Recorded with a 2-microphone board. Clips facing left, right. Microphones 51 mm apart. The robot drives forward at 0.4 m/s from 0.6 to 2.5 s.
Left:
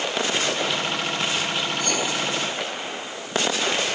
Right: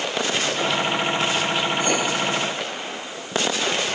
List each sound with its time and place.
1.8 s writing: 20° right (ahead or behind), 4 m